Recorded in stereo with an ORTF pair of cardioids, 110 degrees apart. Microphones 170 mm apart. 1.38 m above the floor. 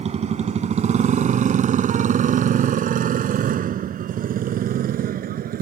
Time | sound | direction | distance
0.0 | a motorcycle | 40° right | ?